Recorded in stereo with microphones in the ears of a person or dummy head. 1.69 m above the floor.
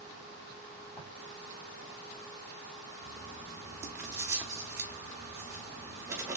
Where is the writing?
10° right (ahead or behind), 0.9 m.